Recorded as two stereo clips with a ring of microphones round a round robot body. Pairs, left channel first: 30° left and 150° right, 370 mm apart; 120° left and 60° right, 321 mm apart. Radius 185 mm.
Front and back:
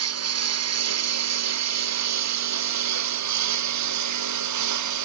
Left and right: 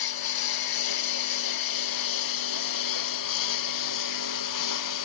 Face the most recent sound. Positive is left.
turn(degrees=165)